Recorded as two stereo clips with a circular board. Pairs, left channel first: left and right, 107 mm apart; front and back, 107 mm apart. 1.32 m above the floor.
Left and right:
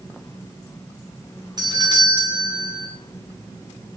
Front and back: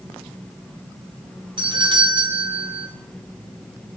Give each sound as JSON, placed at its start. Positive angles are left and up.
{"t": 1.6, "sound": "a doorbell", "azimuth_deg": -140, "distance_m": 1.7}